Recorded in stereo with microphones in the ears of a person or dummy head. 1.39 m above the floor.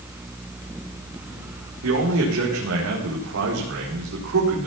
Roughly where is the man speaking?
Right.